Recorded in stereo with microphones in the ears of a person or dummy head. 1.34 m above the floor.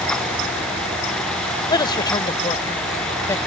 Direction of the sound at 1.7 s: 20° left (ahead or behind).